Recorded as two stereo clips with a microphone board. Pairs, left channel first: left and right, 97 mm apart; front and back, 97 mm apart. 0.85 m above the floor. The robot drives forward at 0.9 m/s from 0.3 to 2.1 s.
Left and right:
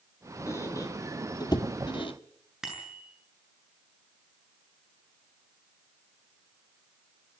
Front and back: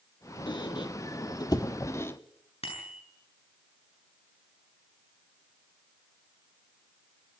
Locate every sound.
0.5 s a squeak: 30° left, 2.5 m; by 2.1 s 65° left, 1.3 m
2.6 s a bicycle bell: 5° right, 7.5 m